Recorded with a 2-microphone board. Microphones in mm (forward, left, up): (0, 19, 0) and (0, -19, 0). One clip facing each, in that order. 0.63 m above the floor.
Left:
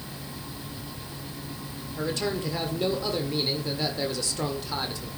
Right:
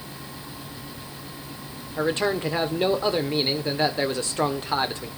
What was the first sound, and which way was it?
A man speaking, 35° right (ahead or behind).